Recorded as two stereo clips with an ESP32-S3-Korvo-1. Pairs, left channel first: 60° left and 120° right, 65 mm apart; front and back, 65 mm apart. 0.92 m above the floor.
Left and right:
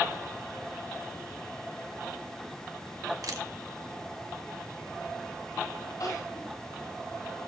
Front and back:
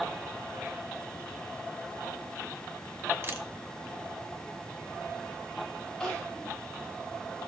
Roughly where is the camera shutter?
Behind right.